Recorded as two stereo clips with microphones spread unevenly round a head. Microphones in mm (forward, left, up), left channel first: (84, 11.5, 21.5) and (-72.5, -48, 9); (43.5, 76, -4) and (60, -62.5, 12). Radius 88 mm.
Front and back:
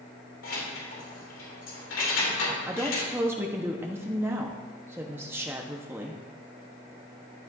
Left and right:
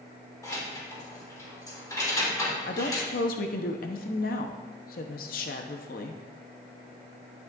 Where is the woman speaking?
120° left, 0.8 m.